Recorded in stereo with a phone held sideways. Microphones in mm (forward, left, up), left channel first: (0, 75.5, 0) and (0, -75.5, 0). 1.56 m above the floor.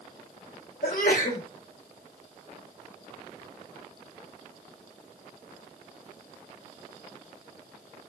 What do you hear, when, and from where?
0.8 s a sneeze: 75° left (ahead or behind), 3.5 m